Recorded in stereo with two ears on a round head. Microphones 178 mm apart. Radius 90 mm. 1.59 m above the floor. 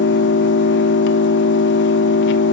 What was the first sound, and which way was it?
An engine running, 65° left (ahead or behind).